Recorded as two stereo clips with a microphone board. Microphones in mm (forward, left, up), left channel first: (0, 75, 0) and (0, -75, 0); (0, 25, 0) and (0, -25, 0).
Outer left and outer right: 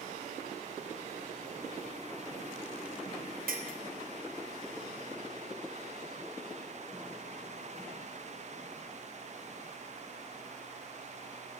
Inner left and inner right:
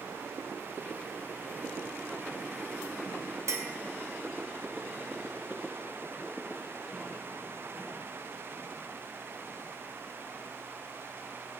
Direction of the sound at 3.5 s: 75° right (ahead or behind).